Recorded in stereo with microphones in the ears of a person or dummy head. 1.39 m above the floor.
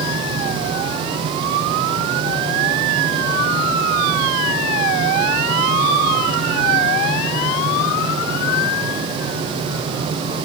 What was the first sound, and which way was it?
Only background noise.